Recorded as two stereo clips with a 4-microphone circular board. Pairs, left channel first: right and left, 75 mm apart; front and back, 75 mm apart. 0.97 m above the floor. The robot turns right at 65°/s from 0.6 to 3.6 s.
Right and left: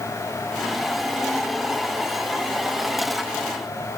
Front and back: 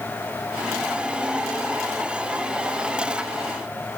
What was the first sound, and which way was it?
Only background noise.